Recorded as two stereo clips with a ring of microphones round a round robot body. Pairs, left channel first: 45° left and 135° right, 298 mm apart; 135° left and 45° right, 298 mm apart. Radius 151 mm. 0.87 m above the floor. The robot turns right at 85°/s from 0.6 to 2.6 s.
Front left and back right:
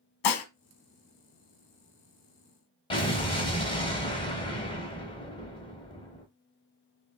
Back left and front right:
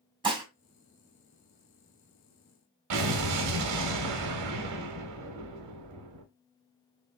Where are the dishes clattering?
30° left, 0.8 m.